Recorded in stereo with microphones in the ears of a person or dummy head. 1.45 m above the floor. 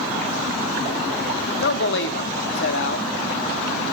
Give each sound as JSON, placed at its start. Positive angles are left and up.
{"t": 1.6, "sound": "a man speaking", "side_deg": 70, "distance_m": 1.1}